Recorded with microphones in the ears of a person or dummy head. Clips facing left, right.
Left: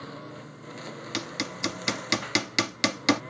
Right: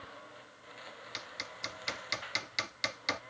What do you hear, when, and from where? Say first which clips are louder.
0.0 s a lawn mower: left 11 dB; 60° left (ahead or behind); by 3.3 s 65° left (ahead or behind)
1.1 s hammering: left 19 dB; 70° left (ahead or behind)